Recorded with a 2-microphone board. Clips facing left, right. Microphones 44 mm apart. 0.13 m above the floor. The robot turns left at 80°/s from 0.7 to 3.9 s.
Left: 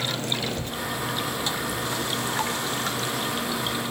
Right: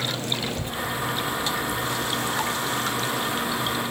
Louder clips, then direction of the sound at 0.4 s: Right 1 dB; 20° right (ahead or behind).